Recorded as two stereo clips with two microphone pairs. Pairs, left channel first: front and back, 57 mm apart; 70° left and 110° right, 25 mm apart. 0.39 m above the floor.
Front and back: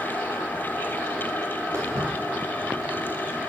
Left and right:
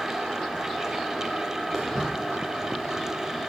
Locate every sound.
1.7 s footsteps: 150° left, 3 m